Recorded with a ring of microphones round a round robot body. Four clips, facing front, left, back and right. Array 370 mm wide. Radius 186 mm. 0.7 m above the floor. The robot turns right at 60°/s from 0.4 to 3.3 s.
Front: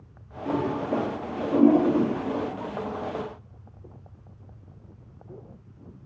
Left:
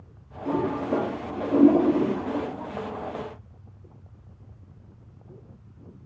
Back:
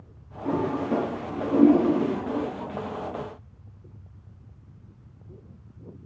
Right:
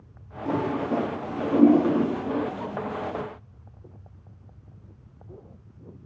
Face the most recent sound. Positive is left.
turn(degrees=0)